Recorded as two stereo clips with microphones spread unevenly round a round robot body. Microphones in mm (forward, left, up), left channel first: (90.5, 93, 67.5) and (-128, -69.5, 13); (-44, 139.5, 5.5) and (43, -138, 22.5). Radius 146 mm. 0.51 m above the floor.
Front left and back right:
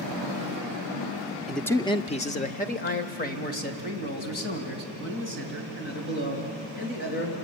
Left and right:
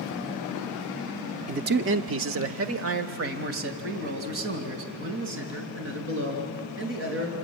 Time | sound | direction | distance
1.5 | a man speaking | 95° right | 0.6 m